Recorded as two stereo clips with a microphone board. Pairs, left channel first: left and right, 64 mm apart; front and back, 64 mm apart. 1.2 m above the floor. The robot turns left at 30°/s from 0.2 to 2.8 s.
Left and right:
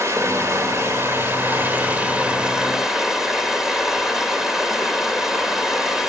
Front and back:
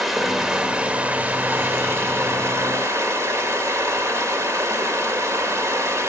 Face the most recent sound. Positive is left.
turn(degrees=-175)